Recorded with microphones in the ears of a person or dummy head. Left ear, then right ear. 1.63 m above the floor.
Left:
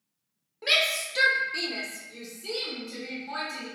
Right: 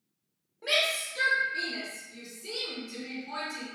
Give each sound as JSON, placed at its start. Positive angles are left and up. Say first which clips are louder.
{"t": 0.6, "sound": "a shout", "louder": "left 3 dB", "side_deg": 40, "distance_m": 0.6}